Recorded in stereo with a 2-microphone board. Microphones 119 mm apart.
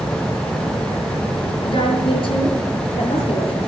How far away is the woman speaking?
About 5 m.